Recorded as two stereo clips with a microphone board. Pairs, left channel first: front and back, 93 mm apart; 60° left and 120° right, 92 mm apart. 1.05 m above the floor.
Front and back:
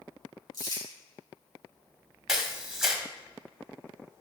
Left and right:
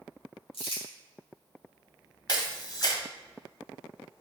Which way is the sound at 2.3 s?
95° left.